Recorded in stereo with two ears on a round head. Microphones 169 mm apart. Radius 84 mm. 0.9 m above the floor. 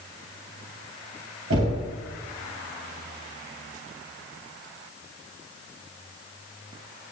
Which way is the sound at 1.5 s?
90° right.